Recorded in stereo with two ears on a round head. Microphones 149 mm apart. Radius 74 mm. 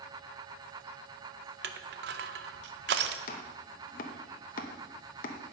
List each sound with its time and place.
1.6 s crushing: 70° right (ahead or behind), 0.6 m
3.3 s chopping: 50° left (ahead or behind), 0.7 m